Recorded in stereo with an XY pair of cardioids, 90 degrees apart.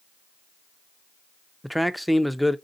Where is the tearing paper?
No tearing paper in this recording.